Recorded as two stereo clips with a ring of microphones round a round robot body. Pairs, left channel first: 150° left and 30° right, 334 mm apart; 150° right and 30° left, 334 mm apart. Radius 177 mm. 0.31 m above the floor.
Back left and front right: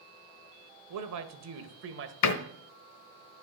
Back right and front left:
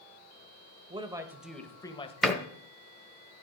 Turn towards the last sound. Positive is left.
turn(degrees=120)